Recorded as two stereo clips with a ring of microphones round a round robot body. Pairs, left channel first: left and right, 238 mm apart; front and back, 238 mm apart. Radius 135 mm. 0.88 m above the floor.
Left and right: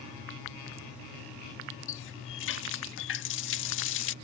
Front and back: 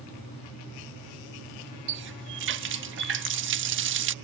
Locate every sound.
1.9 s a running tap: 135° left